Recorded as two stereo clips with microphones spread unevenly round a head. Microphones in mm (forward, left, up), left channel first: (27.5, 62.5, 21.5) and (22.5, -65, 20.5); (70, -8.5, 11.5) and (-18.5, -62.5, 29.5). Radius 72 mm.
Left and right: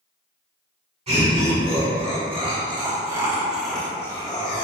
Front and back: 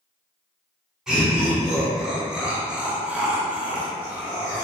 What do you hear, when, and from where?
1.1 s laughter: 60° right, 1.4 m; by 4.7 s 125° left, 0.8 m